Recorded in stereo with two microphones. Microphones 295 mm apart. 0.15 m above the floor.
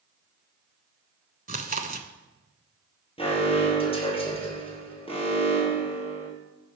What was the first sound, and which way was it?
Chewing, 30° right (ahead or behind).